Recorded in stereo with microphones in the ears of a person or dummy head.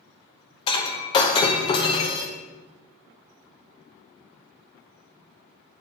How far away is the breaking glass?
About 1.0 m.